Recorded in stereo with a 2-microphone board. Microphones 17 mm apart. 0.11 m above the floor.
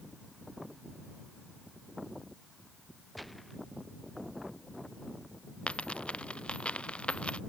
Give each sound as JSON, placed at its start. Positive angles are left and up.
{"t": 3.1, "sound": "a gunshot", "side_deg": 5}
{"t": 5.7, "sound": "a dropped coin", "side_deg": 70}